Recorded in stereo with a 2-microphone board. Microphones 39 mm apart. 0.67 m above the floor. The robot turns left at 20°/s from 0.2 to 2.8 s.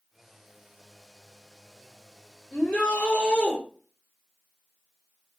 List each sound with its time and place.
2.5 s a shout: 30° left (ahead or behind), 1.5 m; by 3.6 s 25° left (ahead or behind), 1.5 m